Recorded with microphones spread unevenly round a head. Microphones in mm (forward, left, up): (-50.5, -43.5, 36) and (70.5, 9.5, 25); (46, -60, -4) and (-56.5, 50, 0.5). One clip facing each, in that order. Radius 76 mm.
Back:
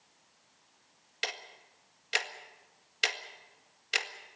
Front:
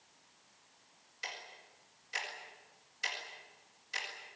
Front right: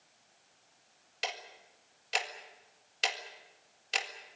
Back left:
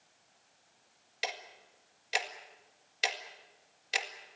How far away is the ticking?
About 1.8 m.